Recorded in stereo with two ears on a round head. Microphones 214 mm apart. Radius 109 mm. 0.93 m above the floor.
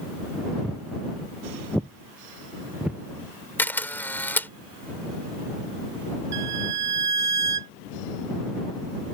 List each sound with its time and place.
0.6 s footsteps: 5° left (ahead or behind); by 3.0 s 5° right (ahead or behind)
3.6 s a camera shutter: 10° left (ahead or behind)
6.3 s a violin: 80° right